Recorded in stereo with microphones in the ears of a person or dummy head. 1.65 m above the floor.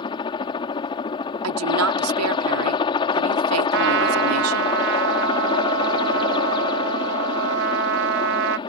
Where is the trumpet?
65° right (ahead or behind).